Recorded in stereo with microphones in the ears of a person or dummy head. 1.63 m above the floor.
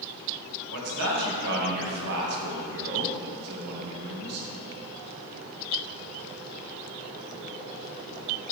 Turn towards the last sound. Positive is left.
turn(degrees=-60)  # may be behind; listen again after turning